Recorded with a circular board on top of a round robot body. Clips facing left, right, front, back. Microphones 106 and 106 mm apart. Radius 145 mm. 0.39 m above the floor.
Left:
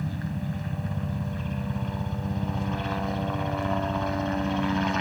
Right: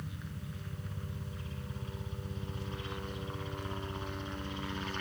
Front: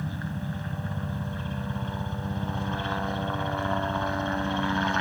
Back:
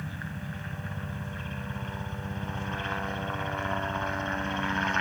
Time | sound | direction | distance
0.0 | a helicopter | 70° left | ?